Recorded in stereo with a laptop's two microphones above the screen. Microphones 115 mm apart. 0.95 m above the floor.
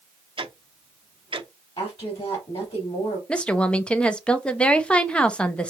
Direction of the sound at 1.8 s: 55° left (ahead or behind).